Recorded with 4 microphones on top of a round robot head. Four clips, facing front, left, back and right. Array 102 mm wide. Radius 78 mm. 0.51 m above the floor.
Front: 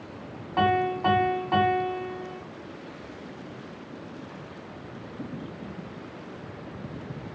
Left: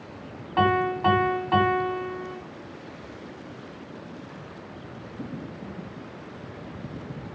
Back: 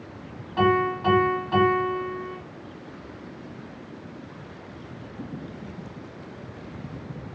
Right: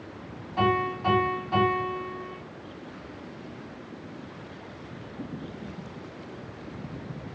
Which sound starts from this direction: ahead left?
A piano, at 0.6 s.